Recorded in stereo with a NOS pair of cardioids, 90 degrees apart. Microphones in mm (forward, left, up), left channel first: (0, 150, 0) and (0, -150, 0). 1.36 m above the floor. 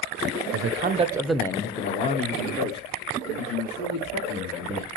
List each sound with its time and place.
0.5 s a man speaking: 55° right, 0.6 m; by 4.9 s 50° left, 3 m